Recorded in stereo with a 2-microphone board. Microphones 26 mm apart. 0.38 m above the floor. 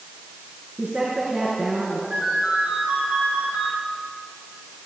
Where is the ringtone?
80° right, 10 m.